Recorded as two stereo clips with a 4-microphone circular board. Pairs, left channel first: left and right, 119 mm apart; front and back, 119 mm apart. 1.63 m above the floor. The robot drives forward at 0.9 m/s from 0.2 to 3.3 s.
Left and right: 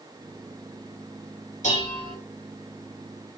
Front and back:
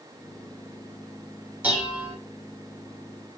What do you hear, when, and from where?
1.6 s dishes clattering: 105° left, 7 m